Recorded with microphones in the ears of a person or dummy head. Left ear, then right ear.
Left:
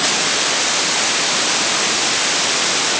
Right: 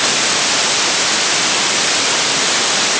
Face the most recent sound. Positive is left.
No sound to turn to.